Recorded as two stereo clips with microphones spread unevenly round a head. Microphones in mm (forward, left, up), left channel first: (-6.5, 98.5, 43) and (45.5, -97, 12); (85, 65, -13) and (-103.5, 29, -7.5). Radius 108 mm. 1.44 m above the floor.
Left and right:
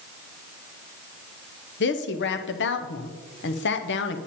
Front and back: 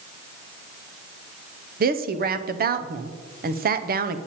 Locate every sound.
1.8 s a woman speaking: 145° left, 0.7 m